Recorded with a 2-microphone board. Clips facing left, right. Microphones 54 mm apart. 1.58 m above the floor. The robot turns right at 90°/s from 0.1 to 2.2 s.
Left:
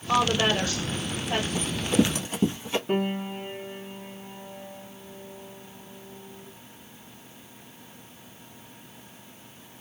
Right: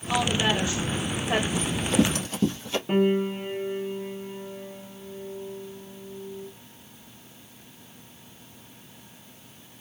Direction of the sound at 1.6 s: 25° left (ahead or behind).